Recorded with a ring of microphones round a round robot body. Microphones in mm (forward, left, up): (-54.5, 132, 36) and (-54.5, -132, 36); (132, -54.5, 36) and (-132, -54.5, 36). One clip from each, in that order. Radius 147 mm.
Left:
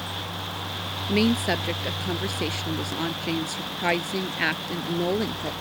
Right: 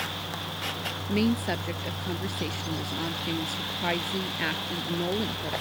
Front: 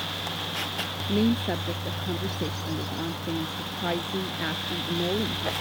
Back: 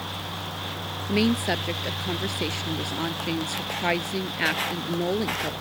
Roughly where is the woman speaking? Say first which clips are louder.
Left 5 dB, back 4 dB; behind left.